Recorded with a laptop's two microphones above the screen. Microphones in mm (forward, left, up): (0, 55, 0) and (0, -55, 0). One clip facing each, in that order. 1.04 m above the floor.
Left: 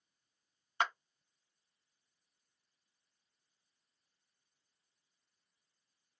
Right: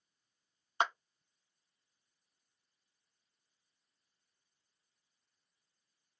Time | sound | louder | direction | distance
0.8 | a clap | right 2 dB | 25° right (ahead or behind) | 0.6 m